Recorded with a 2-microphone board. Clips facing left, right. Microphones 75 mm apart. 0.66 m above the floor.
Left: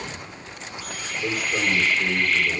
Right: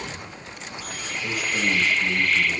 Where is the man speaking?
40° left (ahead or behind), 3 m.